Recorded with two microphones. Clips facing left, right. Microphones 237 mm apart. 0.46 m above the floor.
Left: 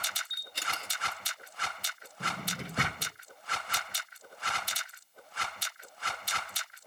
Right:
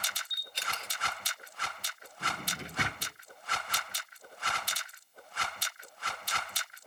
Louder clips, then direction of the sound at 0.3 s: Left 2 dB; 55° left (ahead or behind).